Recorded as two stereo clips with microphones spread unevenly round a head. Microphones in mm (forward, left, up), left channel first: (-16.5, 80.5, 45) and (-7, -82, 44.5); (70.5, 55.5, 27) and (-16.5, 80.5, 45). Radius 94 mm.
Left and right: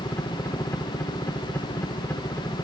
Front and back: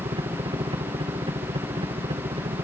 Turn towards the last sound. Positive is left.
turn(degrees=170)